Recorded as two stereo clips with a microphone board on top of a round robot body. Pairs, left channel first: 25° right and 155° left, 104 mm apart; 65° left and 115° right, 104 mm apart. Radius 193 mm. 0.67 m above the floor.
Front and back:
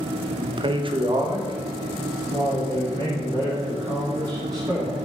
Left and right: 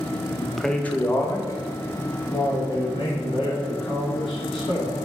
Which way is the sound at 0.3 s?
Straight behind.